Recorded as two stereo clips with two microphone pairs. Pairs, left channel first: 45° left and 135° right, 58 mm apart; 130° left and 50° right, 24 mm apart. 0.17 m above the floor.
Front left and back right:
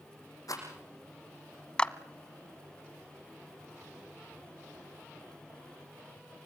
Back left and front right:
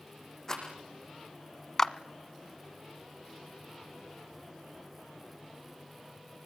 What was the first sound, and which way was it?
A rattle, 65° left.